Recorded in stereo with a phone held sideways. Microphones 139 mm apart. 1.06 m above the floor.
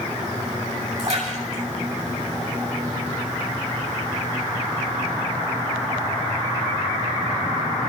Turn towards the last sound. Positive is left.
turn(degrees=-60)  # may be behind; listen again after turning